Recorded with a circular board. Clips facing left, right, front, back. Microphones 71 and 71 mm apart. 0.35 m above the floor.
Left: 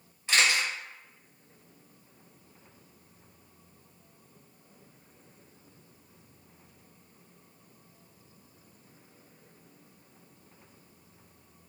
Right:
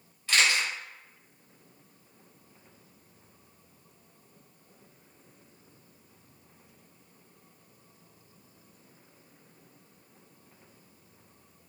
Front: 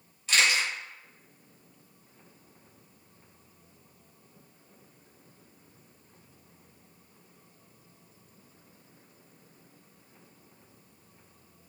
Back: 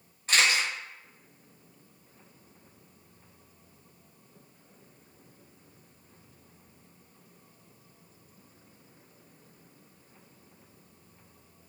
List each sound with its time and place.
0.3 s a camera shutter: 150° left, 1.1 m